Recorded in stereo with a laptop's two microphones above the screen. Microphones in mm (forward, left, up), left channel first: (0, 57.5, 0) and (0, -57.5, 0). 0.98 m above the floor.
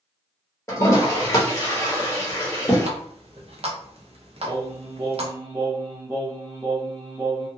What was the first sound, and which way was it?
A toilet flushing, 25° left (ahead or behind).